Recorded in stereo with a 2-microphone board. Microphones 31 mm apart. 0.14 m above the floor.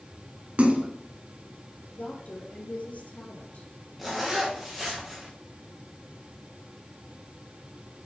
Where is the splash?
45° right (ahead or behind), 1.3 m.